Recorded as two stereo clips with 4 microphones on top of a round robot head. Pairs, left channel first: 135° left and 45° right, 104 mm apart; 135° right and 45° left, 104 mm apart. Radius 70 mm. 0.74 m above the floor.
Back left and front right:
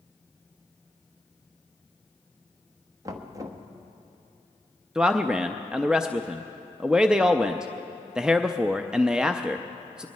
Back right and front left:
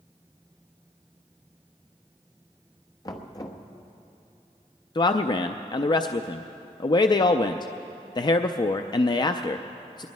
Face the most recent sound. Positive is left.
turn(degrees=-125)